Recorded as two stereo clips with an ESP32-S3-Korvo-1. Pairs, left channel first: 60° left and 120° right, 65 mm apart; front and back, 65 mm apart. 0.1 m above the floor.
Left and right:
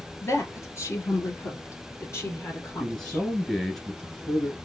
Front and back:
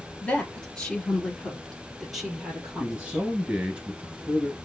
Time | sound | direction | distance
0.2 | a woman speaking | 60° left | 1.6 m
2.8 | a man speaking | 135° left | 1.6 m